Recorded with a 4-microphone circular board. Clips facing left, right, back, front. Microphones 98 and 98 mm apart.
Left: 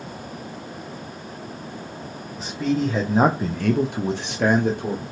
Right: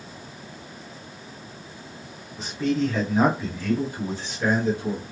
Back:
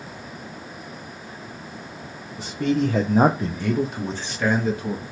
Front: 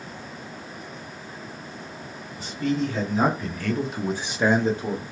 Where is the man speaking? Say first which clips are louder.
Left 1 dB, back 3 dB; 175° right, 0.8 m; by 5.0 s 60° left, 1.1 m.